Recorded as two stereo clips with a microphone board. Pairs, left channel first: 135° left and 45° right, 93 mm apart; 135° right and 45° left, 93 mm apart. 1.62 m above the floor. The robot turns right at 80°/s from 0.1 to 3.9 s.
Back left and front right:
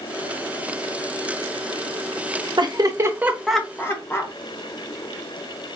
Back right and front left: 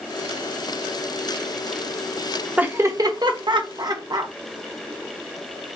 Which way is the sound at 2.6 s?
30° right.